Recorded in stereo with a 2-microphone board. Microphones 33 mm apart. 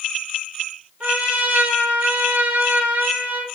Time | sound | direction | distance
1.0 | a trumpet | 55° right (ahead or behind) | 3 m